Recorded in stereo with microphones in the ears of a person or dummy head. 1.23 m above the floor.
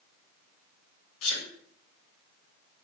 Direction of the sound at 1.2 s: 85° left.